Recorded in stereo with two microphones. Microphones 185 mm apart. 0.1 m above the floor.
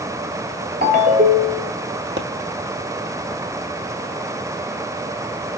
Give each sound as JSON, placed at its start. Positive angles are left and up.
{"t": 0.8, "sound": "a ringtone", "side_deg": -55, "distance_m": 1.3}
{"t": 2.2, "sound": "a pop", "side_deg": -65, "distance_m": 1.3}